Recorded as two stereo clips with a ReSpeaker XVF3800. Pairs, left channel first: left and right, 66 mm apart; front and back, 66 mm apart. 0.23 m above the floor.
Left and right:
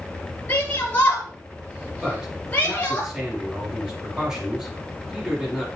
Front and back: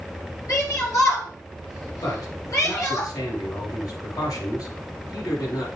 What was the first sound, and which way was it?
A shout, 25° left.